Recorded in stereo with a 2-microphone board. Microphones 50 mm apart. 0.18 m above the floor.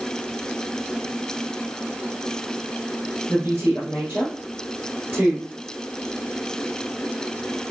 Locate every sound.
3.3 s a woman speaking: 30° right (ahead or behind), 3 m